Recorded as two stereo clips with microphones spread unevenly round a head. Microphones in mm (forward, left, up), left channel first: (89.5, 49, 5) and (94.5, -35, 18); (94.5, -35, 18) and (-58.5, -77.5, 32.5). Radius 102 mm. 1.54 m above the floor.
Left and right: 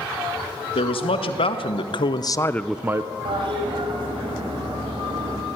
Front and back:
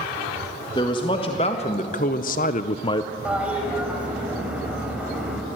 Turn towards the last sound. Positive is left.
turn(degrees=-85)